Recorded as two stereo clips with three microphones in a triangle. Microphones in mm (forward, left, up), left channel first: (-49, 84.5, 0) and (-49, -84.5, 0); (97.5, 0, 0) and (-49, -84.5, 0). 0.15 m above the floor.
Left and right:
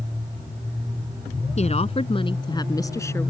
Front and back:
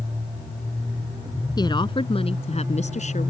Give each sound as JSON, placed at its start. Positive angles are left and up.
{"t": 1.6, "sound": "a woman speaking", "azimuth_deg": 80}